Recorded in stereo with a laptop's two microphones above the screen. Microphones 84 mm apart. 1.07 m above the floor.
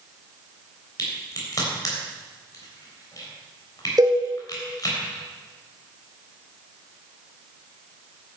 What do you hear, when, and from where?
1.0 s a crack: 45° left (ahead or behind), 3.5 m
4.0 s a cowbell: 50° right (ahead or behind), 2.5 m